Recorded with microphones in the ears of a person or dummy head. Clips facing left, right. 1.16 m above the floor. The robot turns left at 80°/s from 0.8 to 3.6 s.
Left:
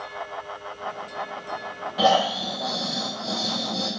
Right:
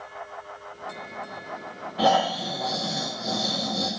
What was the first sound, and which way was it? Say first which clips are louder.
Snoring: left 1 dB; 70° left.